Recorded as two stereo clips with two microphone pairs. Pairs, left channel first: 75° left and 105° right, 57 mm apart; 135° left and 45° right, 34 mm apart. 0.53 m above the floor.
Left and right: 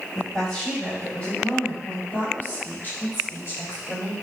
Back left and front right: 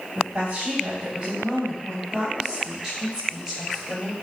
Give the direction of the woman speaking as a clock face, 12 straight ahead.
12 o'clock.